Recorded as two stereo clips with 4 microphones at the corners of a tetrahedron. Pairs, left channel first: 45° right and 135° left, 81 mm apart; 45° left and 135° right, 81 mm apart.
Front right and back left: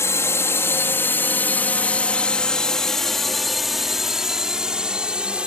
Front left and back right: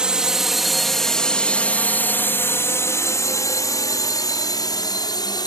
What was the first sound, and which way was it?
A drone, 65° right.